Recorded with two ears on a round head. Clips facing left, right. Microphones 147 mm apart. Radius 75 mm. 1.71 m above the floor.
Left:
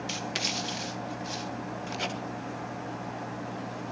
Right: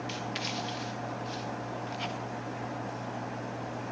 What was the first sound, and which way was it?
Writing, 60° left (ahead or behind).